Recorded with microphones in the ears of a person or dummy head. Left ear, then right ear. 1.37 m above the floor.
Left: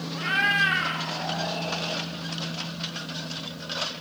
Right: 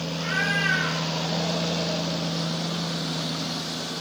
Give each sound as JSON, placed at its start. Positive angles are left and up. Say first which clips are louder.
{"t": 0.1, "sound": "a cat meowing", "louder": "left 3 dB", "side_deg": 45, "distance_m": 1.8}